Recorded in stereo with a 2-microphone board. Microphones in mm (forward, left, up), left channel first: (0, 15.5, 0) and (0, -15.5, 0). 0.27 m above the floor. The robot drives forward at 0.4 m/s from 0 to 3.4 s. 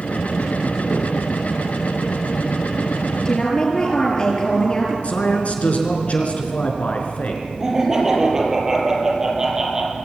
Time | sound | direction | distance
3.2 | a woman speaking | 25° left (ahead or behind) | 7 m
5.0 | a man speaking | 45° left (ahead or behind) | 4 m
7.6 | laughter | 15° right (ahead or behind) | 6 m